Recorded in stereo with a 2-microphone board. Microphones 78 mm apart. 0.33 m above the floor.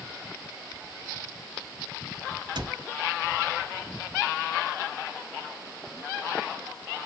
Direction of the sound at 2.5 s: 70° right (ahead or behind).